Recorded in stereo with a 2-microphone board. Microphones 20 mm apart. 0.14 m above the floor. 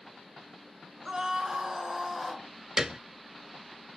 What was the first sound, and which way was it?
A scream, 35° right (ahead or behind).